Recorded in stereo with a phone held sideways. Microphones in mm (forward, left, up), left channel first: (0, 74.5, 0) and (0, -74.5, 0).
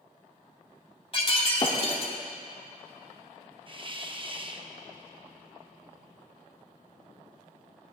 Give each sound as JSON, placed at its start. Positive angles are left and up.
{"t": 1.1, "sound": "breaking glass", "side_deg": 40, "distance_m": 1.6}
{"t": 3.7, "sound": "a hiss", "side_deg": -35, "distance_m": 0.7}